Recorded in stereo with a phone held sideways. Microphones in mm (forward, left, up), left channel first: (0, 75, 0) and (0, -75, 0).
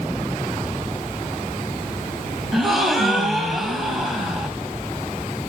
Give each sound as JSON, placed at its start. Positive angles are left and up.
{"t": 2.5, "sound": "a gasp", "side_deg": 0, "distance_m": 1.5}